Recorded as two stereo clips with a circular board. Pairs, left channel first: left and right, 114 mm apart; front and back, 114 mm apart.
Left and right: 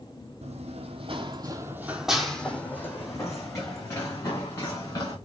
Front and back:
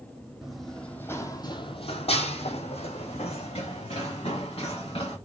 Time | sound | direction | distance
0.4 | running footsteps | 90° right | 0.8 m